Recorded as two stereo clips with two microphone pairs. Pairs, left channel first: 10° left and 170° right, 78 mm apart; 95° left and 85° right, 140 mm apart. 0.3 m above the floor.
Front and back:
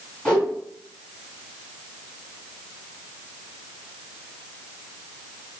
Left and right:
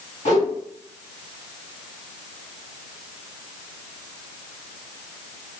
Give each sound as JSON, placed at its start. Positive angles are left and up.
{"t": 0.2, "sound": "a whoosh", "azimuth_deg": 90, "distance_m": 2.5}